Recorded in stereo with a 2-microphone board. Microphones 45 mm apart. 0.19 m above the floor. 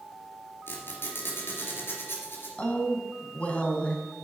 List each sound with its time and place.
0.7 s a squeak: 50° left (ahead or behind), 3 m
2.6 s a woman speaking: 30° left (ahead or behind), 1.6 m